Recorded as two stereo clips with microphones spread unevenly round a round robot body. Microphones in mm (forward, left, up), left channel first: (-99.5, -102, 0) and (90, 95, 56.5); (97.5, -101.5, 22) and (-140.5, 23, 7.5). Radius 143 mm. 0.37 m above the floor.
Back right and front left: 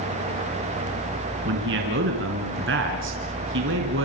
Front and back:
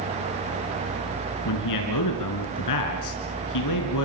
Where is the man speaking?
5° right, 4.5 m.